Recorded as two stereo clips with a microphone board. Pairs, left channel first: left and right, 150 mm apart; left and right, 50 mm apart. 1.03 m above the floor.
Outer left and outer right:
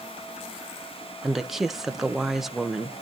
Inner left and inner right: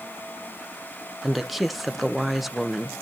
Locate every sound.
1.2 s a woman speaking: centre (ahead or behind), 0.8 m